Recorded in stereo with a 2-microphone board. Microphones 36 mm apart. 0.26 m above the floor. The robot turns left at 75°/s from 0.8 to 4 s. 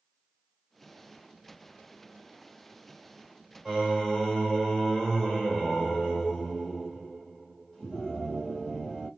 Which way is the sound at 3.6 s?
10° right (ahead or behind).